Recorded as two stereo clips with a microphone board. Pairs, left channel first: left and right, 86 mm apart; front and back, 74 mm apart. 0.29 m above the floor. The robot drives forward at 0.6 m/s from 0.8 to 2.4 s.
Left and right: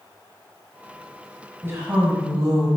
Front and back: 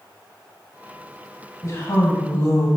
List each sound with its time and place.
1.6 s a woman speaking: 35° right, 1.6 m; by 2.7 s 50° right, 1.3 m